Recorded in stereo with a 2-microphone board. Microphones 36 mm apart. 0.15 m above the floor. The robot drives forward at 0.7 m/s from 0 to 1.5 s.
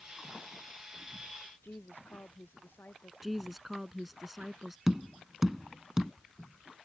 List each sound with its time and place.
1.6 s a woman speaking: 70° left (ahead or behind)
3.2 s a woman speaking: 5° right (ahead or behind)
4.9 s tapping: 10° right (ahead or behind)